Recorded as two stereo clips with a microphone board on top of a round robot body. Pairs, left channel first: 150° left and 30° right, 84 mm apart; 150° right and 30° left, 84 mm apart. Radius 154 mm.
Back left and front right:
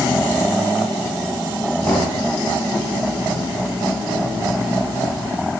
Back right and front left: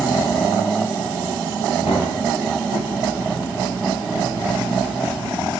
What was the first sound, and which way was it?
Knocking, 145° right.